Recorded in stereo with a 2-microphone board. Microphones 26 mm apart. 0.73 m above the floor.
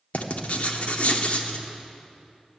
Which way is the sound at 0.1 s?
55° left (ahead or behind).